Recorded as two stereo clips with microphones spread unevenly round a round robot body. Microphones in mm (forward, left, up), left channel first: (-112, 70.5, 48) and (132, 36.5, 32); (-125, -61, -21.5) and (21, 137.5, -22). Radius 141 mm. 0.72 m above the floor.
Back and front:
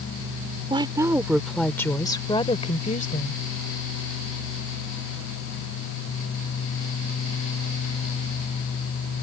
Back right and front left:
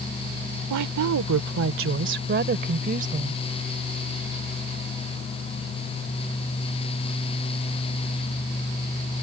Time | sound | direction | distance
0.7 | a woman speaking | 60° left | ?